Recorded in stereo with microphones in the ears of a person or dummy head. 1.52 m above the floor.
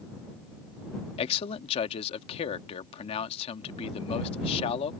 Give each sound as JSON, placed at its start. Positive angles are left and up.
{"t": 1.2, "sound": "a man speaking", "side_deg": 35}